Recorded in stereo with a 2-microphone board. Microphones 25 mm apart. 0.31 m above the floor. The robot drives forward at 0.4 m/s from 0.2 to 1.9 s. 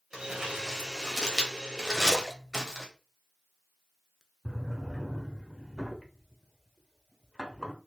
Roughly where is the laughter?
I don't hear laughter.